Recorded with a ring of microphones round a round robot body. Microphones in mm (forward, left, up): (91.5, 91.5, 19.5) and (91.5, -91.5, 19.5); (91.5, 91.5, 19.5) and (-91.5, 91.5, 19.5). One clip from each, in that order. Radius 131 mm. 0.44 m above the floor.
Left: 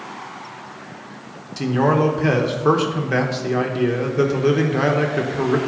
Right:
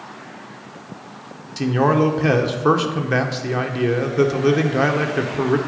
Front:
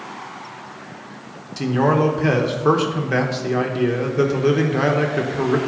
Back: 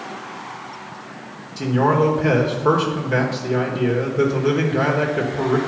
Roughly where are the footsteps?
I don't hear footsteps.